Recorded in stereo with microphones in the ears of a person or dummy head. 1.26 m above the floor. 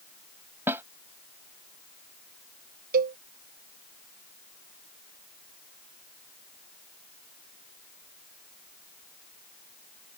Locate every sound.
0.7 s a snare drum: 15° right (ahead or behind)
2.9 s a cowbell: 50° right (ahead or behind)